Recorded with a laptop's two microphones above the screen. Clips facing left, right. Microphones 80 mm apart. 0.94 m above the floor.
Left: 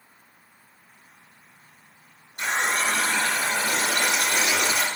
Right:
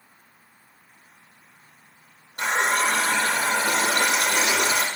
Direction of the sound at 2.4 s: 90° right.